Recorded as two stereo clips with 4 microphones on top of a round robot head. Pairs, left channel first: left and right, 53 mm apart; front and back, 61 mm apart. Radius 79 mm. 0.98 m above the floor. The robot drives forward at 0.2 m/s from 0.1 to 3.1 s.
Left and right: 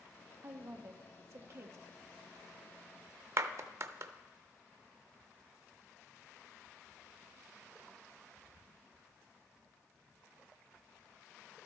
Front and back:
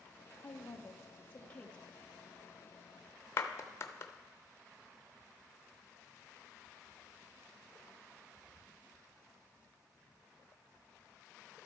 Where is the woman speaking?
50° right, 0.9 m; by 1.8 s 70° right, 0.8 m.